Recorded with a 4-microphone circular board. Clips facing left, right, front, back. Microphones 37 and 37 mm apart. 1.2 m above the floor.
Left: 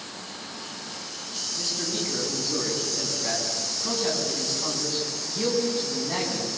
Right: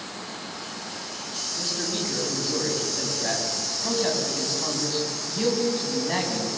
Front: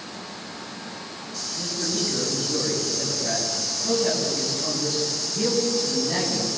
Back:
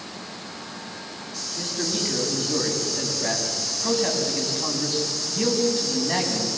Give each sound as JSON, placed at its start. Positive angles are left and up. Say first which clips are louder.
{"t": 1.6, "sound": "a man speaking", "louder": "right 1 dB, even", "azimuth_deg": -150, "distance_m": 7.5}